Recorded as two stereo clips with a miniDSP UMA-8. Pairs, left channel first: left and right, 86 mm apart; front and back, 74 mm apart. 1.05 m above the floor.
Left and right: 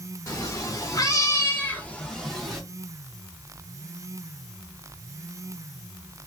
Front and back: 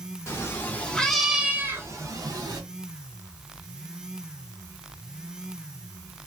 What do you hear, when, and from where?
0.3 s a cat meowing: 45° left, 0.9 m; by 2.6 s straight behind, 1.0 m